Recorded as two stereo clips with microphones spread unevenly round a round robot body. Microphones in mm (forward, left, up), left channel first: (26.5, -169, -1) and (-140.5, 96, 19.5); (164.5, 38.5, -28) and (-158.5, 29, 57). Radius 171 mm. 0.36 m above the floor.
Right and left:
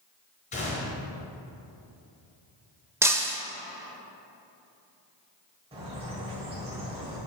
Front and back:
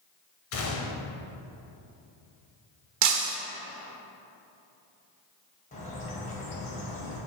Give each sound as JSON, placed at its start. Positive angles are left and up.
{"t": 0.5, "sound": "a gunshot", "azimuth_deg": 5, "distance_m": 1.1}
{"t": 3.0, "sound": "breaking glass", "azimuth_deg": -155, "distance_m": 0.8}
{"t": 5.7, "sound": "a bird", "azimuth_deg": 50, "distance_m": 1.8}